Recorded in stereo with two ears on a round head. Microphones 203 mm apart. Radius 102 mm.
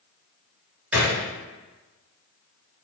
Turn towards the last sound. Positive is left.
turn(degrees=-5)  # may be behind; listen again after turning